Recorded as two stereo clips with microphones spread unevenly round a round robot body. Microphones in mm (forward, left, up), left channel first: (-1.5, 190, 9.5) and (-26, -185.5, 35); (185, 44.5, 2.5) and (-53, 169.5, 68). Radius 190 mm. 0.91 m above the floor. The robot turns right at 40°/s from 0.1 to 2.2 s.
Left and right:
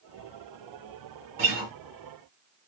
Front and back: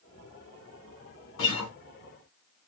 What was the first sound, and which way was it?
A guitar, 25° right.